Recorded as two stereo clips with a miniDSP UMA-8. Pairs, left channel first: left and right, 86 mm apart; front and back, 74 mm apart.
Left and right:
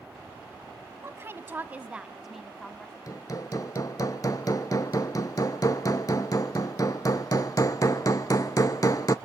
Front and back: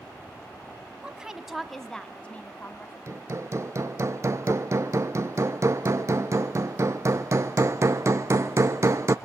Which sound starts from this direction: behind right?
A woman speaking, at 1.0 s.